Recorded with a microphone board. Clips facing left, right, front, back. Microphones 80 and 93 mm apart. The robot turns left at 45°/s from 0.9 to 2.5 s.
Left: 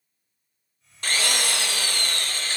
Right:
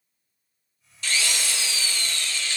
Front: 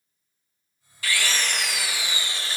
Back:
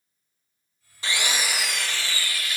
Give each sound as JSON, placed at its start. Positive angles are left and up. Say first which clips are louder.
{"t": 1.0, "sound": "a drill", "louder": "left 2 dB, front 1 dB", "azimuth_deg": 120, "distance_m": 0.9}